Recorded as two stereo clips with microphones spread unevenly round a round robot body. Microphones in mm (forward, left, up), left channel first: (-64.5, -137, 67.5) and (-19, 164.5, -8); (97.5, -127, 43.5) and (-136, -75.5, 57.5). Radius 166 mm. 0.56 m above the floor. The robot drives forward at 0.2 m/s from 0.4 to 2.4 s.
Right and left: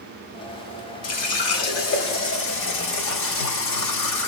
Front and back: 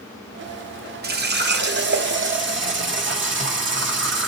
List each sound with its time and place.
1.0 s a running tap: 145° right, 1.0 m; by 4.3 s 155° right, 1.2 m